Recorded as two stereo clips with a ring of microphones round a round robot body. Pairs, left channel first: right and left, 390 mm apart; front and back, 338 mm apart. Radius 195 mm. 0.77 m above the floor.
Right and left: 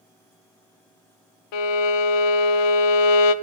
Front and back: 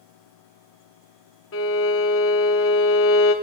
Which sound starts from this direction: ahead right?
A violin, at 1.5 s.